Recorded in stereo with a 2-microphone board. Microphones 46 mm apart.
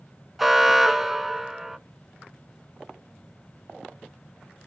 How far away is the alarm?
About 0.8 m.